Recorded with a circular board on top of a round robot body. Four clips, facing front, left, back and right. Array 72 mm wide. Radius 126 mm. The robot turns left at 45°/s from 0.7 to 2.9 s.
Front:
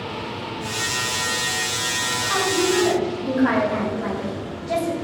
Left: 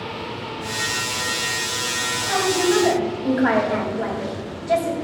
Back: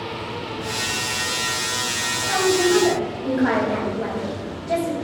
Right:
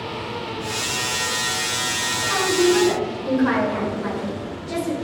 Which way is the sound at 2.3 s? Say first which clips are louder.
Right 1 dB, back 3 dB; 130° left.